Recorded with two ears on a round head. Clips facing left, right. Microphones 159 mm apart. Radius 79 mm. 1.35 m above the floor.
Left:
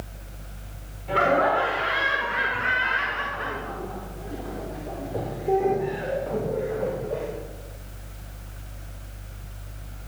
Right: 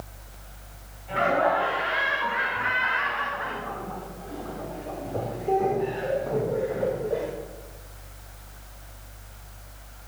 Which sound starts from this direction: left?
Laughter, at 1.1 s.